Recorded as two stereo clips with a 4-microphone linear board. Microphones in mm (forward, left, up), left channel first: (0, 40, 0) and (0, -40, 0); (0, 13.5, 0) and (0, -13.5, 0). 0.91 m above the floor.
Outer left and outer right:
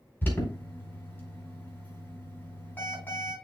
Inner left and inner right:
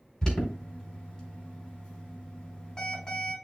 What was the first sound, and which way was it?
An alarm, 25° left (ahead or behind).